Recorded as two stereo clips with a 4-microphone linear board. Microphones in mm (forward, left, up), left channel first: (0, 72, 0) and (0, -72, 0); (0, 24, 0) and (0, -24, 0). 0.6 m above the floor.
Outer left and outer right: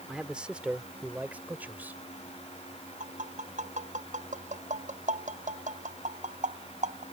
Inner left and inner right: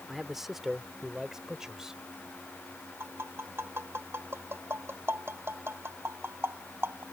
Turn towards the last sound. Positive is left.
turn(degrees=-60)  # may be behind; listen again after turning